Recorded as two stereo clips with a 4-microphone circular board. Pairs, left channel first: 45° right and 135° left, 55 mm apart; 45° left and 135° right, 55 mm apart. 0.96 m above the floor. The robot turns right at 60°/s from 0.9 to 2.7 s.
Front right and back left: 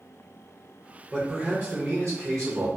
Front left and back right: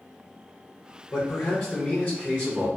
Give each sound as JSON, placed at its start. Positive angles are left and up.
{"t": 1.1, "sound": "a man speaking", "azimuth_deg": 80, "distance_m": 0.7}